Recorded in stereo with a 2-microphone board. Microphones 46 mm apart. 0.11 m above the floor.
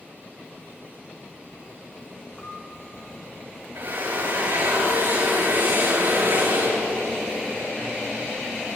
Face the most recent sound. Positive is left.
turn(degrees=-70)  # may be behind; listen again after turning